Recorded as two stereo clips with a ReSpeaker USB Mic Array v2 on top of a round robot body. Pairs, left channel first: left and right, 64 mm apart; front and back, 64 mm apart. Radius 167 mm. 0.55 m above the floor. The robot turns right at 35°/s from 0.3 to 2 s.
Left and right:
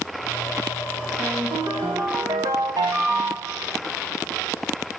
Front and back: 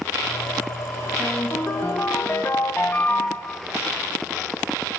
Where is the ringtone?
90° right, 4 m; by 3.6 s 65° right, 4 m.